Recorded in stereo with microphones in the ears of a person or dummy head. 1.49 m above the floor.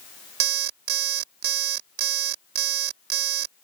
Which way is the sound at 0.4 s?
60° right (ahead or behind).